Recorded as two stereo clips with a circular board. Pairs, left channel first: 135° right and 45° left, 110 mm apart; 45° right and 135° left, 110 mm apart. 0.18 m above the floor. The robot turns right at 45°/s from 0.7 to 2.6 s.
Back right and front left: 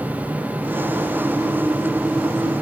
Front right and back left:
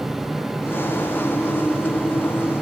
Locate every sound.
Only background noise.